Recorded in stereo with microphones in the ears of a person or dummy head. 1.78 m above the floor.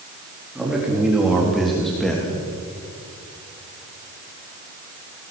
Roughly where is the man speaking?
Centre.